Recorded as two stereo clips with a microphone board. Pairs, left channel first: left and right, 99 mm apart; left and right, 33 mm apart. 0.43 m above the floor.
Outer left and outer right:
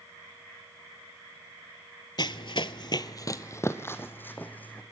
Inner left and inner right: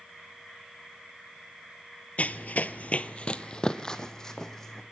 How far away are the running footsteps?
About 0.7 m.